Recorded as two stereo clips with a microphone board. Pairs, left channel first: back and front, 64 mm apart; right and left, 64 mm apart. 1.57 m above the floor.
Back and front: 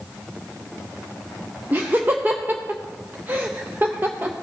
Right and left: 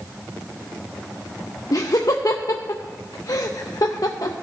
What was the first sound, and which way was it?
Laughter, 60° right.